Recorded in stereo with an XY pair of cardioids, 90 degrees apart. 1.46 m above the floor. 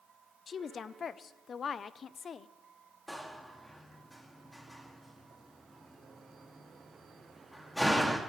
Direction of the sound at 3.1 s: 5° left.